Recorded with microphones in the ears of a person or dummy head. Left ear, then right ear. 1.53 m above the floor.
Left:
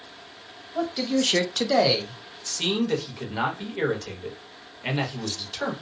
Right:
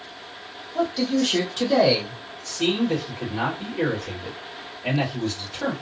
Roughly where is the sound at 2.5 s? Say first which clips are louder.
Right 1 dB; left.